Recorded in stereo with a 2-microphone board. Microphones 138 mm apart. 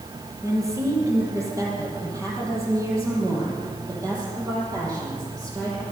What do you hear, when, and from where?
0.4 s a woman speaking: 20° right (ahead or behind), 4.5 m; by 5.8 s 25° right (ahead or behind), 7.5 m